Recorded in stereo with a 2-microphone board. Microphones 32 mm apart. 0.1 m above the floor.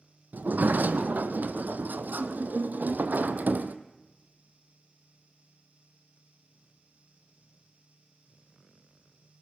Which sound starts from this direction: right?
A sliding door, at 0.3 s.